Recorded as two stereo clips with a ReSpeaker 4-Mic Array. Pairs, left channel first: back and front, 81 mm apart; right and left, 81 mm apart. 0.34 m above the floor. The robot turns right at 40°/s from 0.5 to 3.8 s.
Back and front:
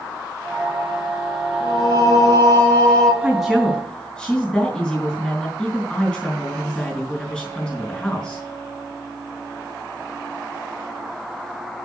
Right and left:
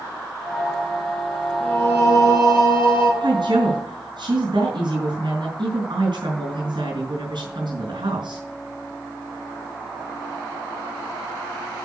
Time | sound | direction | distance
1.6 | singing | 160° right | 4.5 m
3.2 | a woman speaking | 80° left | 3.5 m